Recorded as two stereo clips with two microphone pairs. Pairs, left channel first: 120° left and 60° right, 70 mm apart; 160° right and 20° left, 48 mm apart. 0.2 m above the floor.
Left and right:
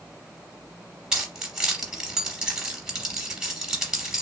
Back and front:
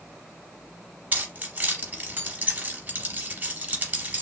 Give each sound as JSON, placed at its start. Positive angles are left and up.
{"t": 1.1, "sound": "keys jangling", "azimuth_deg": 10, "distance_m": 0.9}